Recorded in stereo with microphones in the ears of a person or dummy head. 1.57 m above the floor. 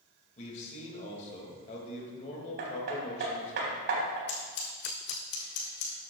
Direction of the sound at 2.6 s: 60° right (ahead or behind).